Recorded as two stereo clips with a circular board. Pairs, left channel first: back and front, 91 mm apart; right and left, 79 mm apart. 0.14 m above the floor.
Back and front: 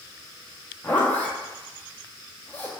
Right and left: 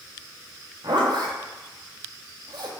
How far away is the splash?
I don't hear a splash.